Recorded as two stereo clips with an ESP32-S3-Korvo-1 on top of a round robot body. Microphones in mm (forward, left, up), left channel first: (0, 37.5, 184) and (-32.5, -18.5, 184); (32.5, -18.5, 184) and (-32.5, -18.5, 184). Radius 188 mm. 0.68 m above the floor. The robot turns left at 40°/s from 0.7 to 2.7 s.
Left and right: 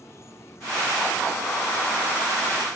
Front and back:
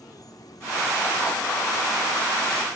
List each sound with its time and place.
0.0 s an insect: 15° left; by 2.8 s 65° right